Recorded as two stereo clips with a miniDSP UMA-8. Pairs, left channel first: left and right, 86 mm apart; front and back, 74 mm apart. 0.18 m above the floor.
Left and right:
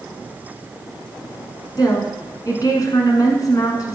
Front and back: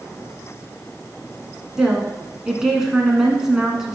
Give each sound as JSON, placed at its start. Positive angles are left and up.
{"t": 1.8, "sound": "a woman speaking", "azimuth_deg": 100, "distance_m": 1.5}